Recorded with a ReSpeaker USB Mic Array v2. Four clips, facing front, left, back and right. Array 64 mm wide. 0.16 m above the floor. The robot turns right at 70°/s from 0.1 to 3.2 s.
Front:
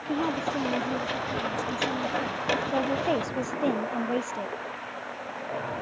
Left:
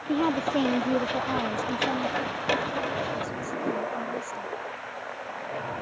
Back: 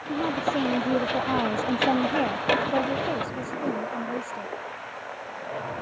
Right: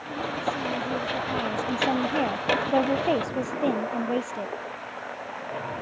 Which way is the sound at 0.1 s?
80° left.